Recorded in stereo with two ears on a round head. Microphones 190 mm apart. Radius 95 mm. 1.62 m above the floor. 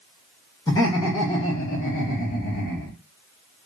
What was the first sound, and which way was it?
Laughter, 15° left (ahead or behind).